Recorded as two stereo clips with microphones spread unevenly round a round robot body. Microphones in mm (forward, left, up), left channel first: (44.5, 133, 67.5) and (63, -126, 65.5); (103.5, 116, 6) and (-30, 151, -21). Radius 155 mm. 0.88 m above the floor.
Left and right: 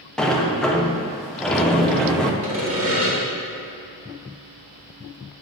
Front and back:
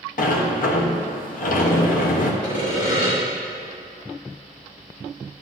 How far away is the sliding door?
About 0.7 m.